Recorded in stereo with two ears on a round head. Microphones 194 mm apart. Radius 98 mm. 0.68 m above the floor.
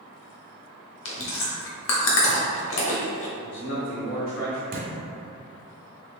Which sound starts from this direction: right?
A thud, at 4.7 s.